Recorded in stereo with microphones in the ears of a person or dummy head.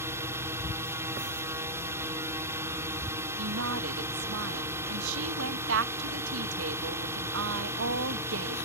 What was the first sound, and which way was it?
A drone, 15° right (ahead or behind).